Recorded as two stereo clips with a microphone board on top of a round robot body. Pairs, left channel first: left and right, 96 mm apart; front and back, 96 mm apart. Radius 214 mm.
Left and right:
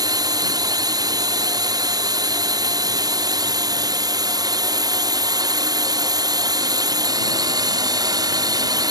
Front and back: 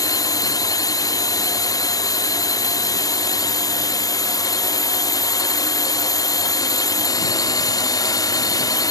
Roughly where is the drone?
Ahead right.